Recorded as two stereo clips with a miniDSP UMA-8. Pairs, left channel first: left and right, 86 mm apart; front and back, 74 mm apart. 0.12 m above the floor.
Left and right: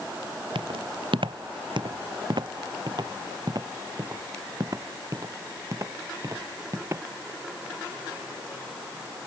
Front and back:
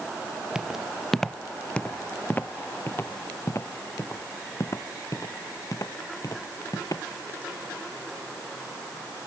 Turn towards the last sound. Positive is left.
turn(degrees=-35)